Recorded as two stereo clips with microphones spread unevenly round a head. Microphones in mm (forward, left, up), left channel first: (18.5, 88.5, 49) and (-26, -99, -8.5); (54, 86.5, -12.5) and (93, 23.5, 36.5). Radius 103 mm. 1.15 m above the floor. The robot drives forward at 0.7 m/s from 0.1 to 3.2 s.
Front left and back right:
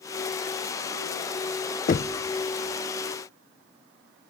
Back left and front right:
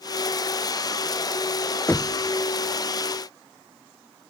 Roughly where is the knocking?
Behind left.